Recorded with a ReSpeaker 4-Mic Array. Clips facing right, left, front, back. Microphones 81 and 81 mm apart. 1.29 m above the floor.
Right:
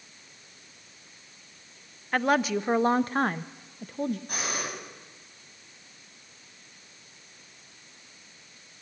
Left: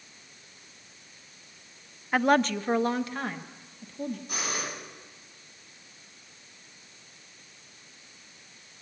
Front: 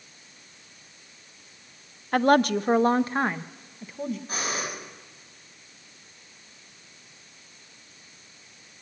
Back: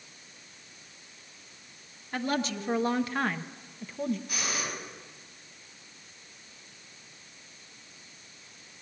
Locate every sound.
2.1 s a woman speaking: 10° left, 0.9 m; by 4.2 s 90° right, 1.3 m
4.3 s breathing: 50° right, 8.5 m